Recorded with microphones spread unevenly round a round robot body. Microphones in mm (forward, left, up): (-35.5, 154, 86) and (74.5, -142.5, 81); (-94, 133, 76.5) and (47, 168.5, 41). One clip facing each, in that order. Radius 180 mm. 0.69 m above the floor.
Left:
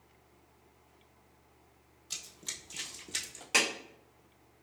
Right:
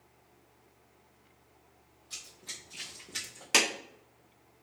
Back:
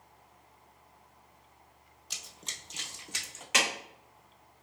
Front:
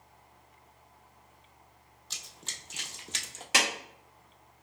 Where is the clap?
20° right, 1.3 m.